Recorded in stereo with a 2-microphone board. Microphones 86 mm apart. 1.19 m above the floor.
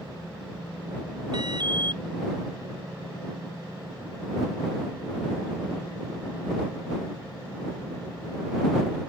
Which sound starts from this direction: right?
An alarm, at 1.3 s.